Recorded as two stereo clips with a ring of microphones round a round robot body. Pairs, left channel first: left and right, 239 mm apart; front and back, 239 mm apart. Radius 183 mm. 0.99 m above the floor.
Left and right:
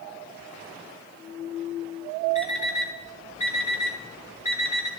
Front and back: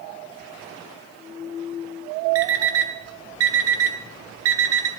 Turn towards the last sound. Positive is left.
turn(degrees=160)